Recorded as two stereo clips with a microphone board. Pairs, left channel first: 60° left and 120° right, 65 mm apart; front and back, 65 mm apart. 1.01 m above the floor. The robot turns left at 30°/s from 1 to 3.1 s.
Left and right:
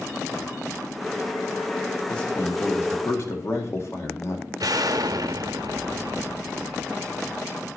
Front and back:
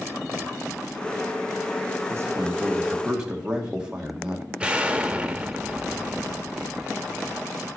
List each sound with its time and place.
2.1 s a man speaking: 135° left, 1.8 m; by 4.5 s 105° left, 1.8 m
4.6 s an explosion: 105° right, 0.9 m